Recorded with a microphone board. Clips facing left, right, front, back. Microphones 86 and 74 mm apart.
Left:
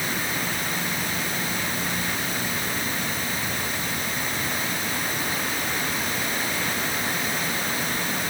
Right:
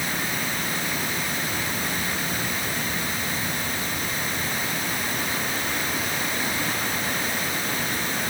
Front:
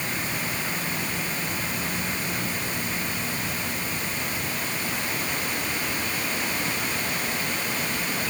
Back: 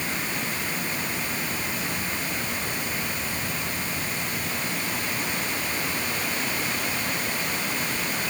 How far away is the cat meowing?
No cat meowing in this recording.